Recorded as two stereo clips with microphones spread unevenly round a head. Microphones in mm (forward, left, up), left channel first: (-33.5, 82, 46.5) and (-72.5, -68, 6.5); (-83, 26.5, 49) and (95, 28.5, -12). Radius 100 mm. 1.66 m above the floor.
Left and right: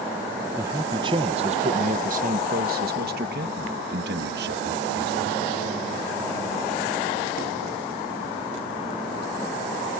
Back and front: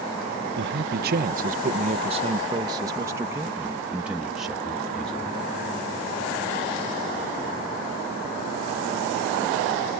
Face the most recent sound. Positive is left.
turn(degrees=-95)